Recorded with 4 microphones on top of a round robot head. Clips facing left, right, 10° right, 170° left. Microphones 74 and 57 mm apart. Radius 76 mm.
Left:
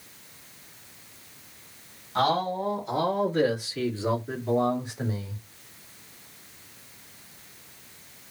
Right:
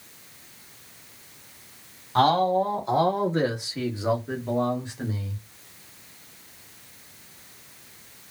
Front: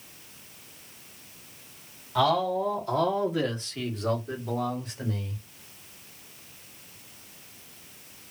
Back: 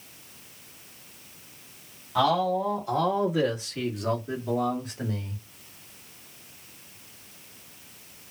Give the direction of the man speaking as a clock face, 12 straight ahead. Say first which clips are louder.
Right 5 dB, back 1 dB; 3 o'clock.